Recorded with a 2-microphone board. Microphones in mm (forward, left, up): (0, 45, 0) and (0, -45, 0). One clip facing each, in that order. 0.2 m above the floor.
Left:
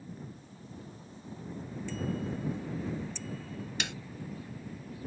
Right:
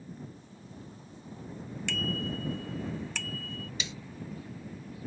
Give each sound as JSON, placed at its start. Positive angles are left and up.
{"t": 1.9, "sound": "a bicycle bell", "side_deg": -80}
{"t": 3.8, "sound": "a snare drum", "side_deg": 65}